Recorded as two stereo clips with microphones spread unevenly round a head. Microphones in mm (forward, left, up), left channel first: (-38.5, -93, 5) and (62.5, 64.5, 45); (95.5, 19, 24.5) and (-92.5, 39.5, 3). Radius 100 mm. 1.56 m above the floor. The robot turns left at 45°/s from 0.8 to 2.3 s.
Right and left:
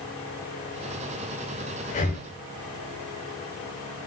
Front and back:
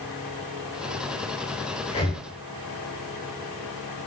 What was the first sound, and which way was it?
Breathing, 65° right.